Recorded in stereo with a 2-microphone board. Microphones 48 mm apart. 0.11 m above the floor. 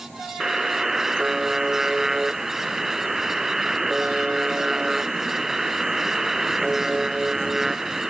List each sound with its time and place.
0.4 s a buzzer: 10° right (ahead or behind)